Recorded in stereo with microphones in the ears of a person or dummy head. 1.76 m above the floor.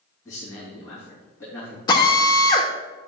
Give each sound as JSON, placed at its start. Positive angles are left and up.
{"t": 0.2, "sound": "a man speaking", "side_deg": 20, "distance_m": 3.0}
{"t": 1.9, "sound": "a drill", "side_deg": 25, "distance_m": 1.1}